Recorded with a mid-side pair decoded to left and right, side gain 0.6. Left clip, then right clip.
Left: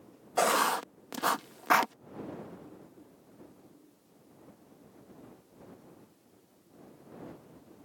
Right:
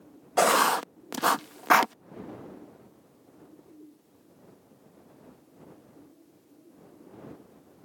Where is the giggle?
No giggle in this recording.